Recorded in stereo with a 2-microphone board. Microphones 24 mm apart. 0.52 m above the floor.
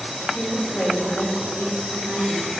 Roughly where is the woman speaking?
Left.